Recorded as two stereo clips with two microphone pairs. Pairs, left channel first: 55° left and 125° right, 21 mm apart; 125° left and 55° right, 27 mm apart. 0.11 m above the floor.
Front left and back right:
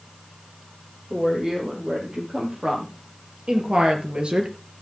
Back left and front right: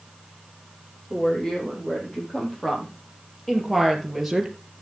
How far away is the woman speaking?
About 5.5 m.